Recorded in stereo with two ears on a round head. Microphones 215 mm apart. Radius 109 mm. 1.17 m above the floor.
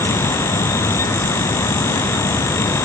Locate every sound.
Only background noise.